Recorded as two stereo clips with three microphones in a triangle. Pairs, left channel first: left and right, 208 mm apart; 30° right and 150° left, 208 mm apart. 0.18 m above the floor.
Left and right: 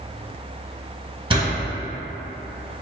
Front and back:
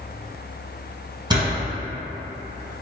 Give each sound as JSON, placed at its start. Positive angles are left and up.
{"t": 1.3, "sound": "a door slam", "azimuth_deg": -145, "distance_m": 1.6}